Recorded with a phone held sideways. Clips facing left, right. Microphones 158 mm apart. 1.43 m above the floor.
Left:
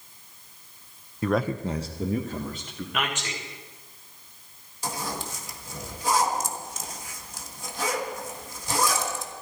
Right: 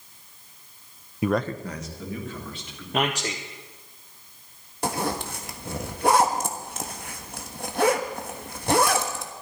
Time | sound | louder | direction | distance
1.2 | a man speaking | even | 15° right (ahead or behind) | 0.5 m
2.9 | a man speaking | right 6 dB | 35° right (ahead or behind) | 0.9 m
4.8 | a zipper | right 6 dB | 65° right (ahead or behind) | 1.3 m